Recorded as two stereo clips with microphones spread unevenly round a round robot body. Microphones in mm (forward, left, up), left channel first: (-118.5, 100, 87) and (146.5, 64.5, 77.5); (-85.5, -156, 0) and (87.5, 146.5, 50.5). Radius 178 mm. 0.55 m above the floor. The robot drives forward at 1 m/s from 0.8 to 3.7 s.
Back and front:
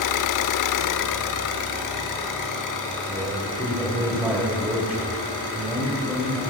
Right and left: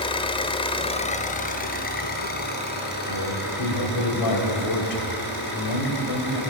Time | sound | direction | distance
0.0 | an engine running | 165° left | 0.8 m
3.1 | a man speaking | 80° right | 2.5 m